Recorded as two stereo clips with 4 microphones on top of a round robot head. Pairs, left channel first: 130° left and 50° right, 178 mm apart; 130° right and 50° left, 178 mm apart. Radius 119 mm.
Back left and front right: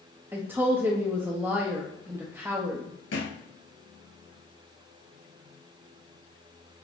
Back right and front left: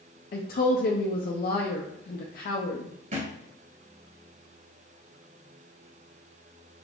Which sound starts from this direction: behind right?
A woman speaking, at 0.3 s.